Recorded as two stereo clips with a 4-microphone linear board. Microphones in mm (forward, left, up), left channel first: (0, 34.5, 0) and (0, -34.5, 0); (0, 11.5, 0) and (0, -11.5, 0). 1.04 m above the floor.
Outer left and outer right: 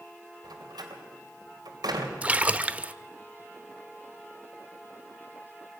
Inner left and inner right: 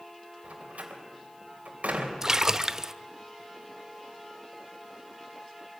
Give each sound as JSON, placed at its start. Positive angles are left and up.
{"t": 0.4, "sound": "a door slam", "side_deg": -80, "distance_m": 3.5}
{"t": 2.2, "sound": "a splash", "side_deg": -20, "distance_m": 0.7}